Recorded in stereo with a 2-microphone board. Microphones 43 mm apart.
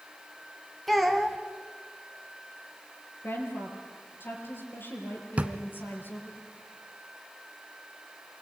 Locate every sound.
0.9 s a child speaking: 5° left (ahead or behind), 1.4 m
3.2 s a woman speaking: 60° left (ahead or behind), 5.5 m
5.4 s a drawer: 30° right (ahead or behind), 1.1 m